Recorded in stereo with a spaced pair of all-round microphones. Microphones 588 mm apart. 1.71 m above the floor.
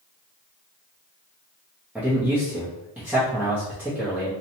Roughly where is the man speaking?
Centre.